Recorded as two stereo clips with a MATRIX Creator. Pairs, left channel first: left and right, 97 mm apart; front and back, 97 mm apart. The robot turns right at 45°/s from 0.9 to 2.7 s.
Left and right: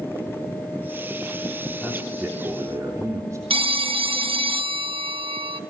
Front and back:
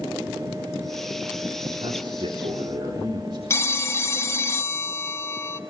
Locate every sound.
1.8 s a man speaking: 175° left, 3 m; by 3.4 s 145° right, 3 m
3.5 s a phone ringing: 60° right, 0.8 m